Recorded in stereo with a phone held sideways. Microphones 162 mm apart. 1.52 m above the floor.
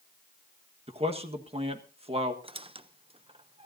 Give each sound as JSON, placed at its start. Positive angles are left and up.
{"t": 0.9, "sound": "a man speaking", "side_deg": -35, "distance_m": 1.5}
{"t": 2.4, "sound": "a squeak", "side_deg": -35, "distance_m": 0.6}